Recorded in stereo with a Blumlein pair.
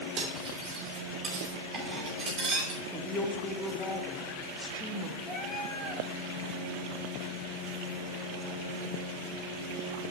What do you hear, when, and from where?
0.2 s cutlery clinking: 25° right, 3 m
2.9 s a woman speaking: 10° left, 1.3 m
5.3 s a cat meowing: 10° left, 4 m